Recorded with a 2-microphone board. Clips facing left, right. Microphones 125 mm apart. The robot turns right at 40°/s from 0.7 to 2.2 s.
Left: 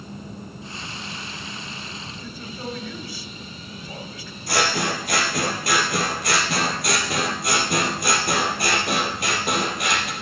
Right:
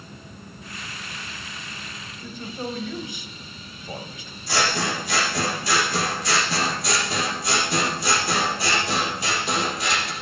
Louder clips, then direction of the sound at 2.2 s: Right 3 dB; 20° right (ahead or behind).